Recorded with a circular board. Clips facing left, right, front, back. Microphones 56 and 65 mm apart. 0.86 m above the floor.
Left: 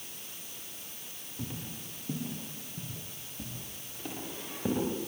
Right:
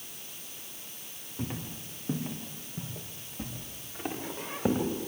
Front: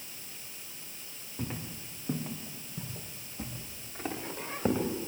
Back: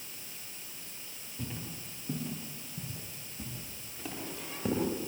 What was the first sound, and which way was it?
Footsteps, 45° right.